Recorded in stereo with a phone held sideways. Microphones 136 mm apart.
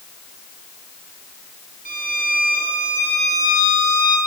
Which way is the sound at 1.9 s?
85° left.